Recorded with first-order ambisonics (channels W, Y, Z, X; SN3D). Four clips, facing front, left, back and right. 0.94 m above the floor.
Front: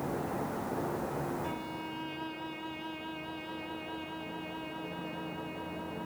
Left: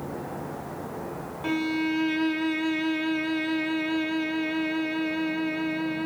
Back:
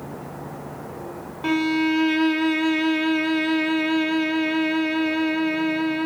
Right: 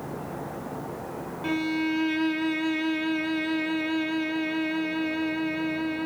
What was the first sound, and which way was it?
A violin, straight behind.